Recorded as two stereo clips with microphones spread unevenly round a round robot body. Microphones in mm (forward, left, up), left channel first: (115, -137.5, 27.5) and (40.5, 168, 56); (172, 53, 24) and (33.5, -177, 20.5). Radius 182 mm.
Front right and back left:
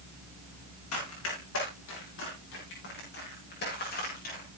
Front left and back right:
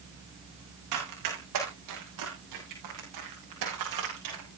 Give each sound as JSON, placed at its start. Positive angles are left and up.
{"t": 0.9, "sound": "running footsteps", "azimuth_deg": -130, "distance_m": 7.5}